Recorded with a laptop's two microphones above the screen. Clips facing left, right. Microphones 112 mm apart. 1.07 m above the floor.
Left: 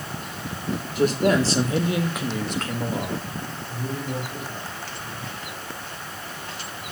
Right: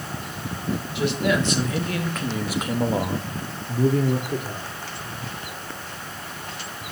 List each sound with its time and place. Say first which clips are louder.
0.9 s a man speaking: left 4 dB; 45° left (ahead or behind), 3 m; by 4.7 s 80° right, 3.5 m